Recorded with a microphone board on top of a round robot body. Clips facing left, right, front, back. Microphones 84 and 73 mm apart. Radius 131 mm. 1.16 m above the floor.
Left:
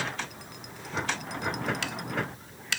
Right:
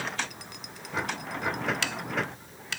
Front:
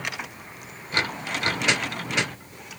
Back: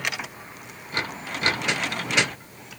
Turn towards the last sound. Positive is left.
No sound to turn to.